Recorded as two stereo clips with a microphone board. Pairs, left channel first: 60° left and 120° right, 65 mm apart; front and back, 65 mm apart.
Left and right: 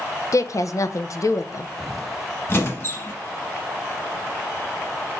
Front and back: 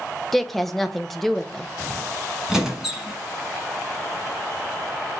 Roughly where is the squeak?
Left.